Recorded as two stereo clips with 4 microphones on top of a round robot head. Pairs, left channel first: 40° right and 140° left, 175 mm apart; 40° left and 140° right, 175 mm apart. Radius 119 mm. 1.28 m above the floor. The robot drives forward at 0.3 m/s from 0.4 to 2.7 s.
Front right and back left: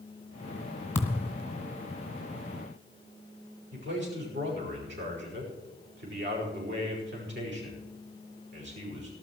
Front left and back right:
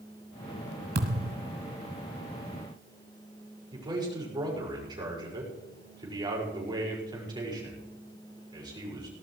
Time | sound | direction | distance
0.9 | a thud | 110° right | 1.5 m
3.7 | a man speaking | 155° left | 5.5 m